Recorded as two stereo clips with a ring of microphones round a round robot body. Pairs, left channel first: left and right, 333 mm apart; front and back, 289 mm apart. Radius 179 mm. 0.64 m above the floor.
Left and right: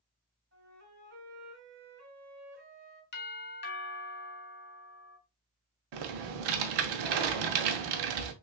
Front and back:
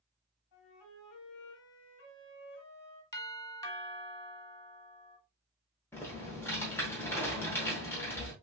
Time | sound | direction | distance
0.5 | a flute | 30° right | 2.5 m
3.1 | a doorbell | 70° left | 1.7 m
5.9 | typing on a keyboard | 85° right | 0.8 m